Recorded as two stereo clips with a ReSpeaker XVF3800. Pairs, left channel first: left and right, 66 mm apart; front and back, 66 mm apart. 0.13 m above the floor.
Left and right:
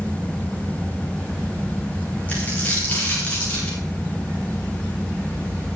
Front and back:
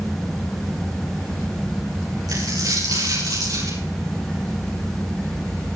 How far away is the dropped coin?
About 8.5 m.